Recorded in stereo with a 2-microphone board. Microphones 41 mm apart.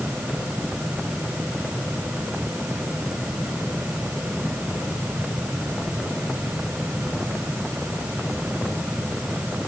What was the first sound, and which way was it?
Only background noise.